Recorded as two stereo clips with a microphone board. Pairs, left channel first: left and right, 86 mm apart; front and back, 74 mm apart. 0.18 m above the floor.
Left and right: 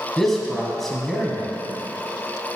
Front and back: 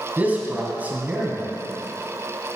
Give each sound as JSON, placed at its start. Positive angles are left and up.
{"t": 0.2, "sound": "a man speaking", "azimuth_deg": 175, "distance_m": 1.5}